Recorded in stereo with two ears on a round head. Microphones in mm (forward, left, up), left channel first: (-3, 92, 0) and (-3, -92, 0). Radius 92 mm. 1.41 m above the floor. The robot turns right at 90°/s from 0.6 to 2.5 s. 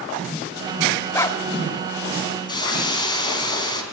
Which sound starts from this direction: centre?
A dog barking, at 1.1 s.